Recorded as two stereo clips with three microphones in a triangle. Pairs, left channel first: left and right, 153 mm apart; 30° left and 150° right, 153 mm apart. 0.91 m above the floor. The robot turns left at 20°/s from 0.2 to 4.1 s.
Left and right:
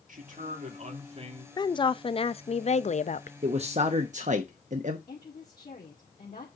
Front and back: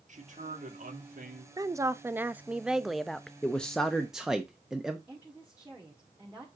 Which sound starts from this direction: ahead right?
A man speaking, at 3.4 s.